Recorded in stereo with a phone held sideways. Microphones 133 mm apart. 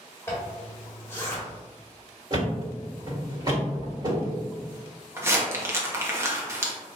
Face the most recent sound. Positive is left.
turn(degrees=-20)  # may be behind; listen again after turning